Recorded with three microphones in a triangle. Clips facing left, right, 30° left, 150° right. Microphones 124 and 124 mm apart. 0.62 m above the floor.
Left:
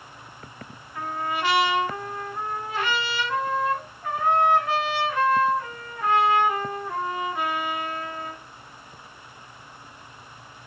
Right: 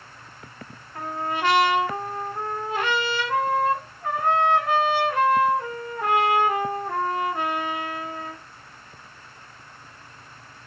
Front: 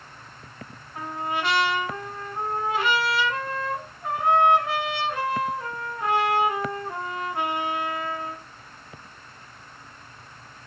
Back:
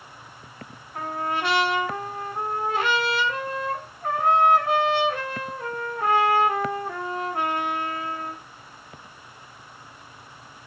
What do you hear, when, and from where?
0.9 s a trumpet: 125° right, 1.5 m